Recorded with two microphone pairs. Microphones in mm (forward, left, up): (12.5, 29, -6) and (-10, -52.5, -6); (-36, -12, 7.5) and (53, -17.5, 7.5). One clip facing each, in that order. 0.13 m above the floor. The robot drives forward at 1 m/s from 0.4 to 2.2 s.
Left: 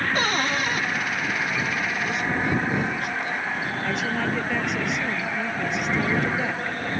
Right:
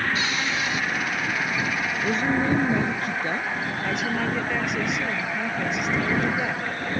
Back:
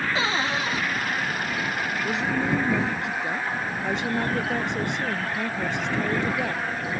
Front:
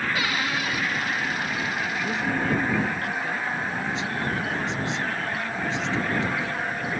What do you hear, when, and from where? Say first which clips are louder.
0.1 s a cupboard door: left 3 dB, back 2 dB; 115° left
2.0 s a woman speaking: right 5 dB, even; 115° right; by 3.5 s 125° right
3.8 s a woman speaking: even, back 2 dB; 165° left